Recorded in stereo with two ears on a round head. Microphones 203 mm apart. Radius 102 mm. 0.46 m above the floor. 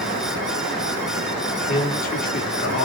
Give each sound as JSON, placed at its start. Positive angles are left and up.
{"t": 1.7, "sound": "a man speaking", "side_deg": 40, "distance_m": 1.3}